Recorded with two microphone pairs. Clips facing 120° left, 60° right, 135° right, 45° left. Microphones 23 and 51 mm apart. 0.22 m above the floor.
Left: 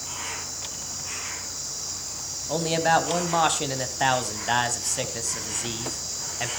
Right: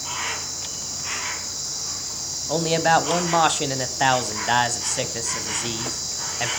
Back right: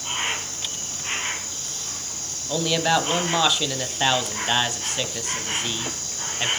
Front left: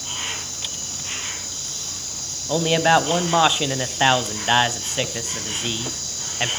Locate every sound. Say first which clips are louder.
0.0 s an insect: right 5 dB, back right 3 dB; 85° right, 2.5 m
2.5 s a man speaking: right 3 dB, front left 4 dB; 10° left, 1.0 m